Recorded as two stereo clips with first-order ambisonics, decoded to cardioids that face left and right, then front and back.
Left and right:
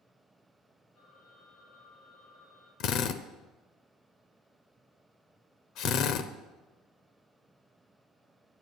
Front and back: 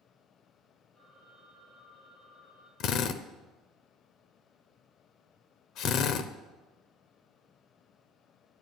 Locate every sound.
0.9 s a phone ringing: 55° left, 7 m
2.8 s a drill: 45° left, 0.7 m